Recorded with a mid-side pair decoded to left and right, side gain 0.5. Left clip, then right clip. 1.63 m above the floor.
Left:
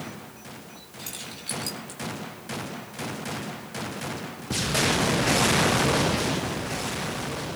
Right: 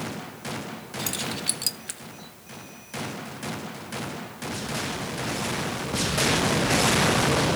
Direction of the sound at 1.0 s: 45° right.